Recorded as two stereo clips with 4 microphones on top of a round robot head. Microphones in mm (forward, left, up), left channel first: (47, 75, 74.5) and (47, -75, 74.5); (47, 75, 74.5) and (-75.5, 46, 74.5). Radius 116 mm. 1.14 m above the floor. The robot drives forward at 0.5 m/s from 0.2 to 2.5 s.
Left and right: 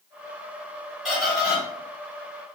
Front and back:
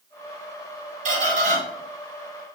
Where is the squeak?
Straight behind, 3 m.